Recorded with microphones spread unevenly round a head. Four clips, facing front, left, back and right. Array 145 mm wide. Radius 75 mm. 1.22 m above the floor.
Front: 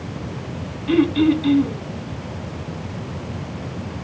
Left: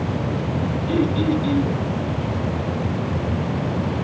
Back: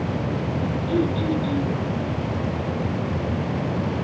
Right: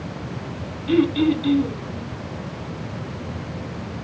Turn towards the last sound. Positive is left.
turn(degrees=-10)